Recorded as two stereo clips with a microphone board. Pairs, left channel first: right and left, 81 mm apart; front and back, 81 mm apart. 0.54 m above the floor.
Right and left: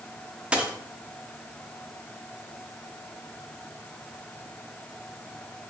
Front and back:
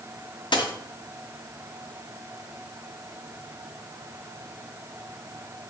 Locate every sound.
0.5 s a dropped coin: 15° left, 0.6 m